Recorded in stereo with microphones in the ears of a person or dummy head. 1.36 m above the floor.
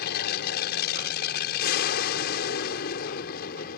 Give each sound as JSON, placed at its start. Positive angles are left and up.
{"t": 0.0, "sound": "an aircraft", "side_deg": 60}